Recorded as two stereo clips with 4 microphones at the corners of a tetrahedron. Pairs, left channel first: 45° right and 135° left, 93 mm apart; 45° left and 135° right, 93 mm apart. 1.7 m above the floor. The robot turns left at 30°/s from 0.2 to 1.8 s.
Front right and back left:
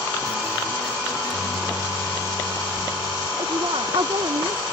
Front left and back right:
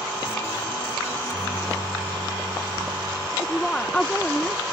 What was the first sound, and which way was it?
A microwave, 10° right.